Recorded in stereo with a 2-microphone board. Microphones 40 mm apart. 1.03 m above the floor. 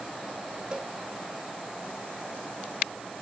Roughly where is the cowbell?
Right.